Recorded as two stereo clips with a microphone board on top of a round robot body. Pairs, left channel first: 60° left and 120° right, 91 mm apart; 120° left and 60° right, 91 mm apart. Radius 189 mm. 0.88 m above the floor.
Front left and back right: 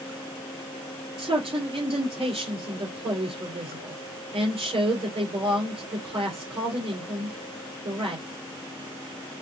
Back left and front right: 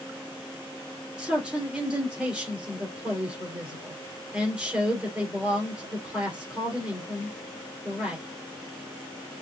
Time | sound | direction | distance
1.2 | a man speaking | 140° right | 3 m